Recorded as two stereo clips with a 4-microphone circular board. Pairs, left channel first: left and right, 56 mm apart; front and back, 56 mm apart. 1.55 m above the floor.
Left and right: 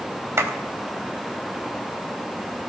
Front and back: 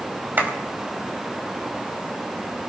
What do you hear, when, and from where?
0.4 s a clap: 125° right, 4 m